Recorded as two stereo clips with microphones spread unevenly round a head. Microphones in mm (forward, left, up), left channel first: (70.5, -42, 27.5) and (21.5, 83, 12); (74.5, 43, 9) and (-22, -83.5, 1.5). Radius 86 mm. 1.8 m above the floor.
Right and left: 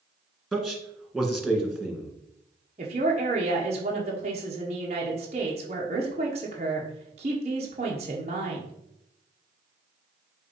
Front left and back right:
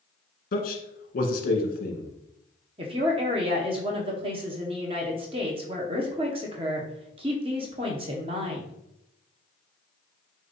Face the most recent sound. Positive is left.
turn(degrees=170)